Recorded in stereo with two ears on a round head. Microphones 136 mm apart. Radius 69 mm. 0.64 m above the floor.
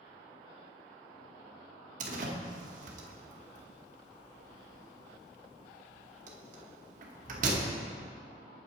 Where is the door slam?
55° right (ahead or behind), 0.9 m.